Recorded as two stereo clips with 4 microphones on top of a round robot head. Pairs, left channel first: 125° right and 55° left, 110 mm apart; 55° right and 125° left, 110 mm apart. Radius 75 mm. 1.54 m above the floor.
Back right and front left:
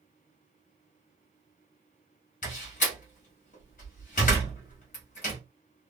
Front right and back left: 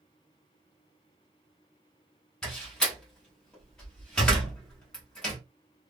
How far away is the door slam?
About 1.1 m.